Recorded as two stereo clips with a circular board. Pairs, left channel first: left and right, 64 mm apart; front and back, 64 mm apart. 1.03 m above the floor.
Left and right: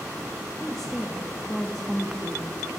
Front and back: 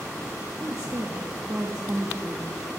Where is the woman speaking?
170° left, 1.3 m.